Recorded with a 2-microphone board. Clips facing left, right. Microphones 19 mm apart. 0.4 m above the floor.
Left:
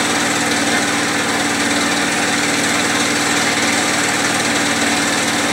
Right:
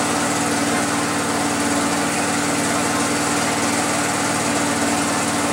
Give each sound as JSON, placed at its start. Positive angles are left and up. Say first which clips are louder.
{"t": 0.0, "sound": "an engine running", "louder": "left 3 dB", "side_deg": 70, "distance_m": 1.4}